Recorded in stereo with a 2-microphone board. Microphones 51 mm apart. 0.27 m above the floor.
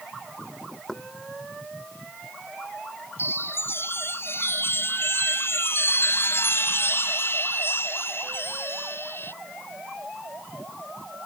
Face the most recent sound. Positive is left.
turn(degrees=50)  # may be behind; listen again after turning